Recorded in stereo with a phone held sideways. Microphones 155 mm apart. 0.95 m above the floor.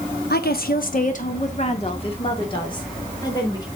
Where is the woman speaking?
75° left (ahead or behind), 1.0 m; by 3.7 s 25° left (ahead or behind), 3 m.